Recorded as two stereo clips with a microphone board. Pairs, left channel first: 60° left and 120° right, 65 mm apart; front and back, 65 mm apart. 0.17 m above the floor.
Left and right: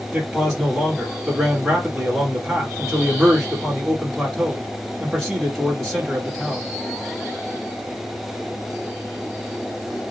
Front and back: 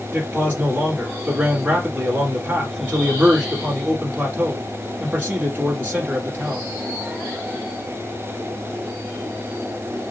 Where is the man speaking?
165° left, 1.0 m.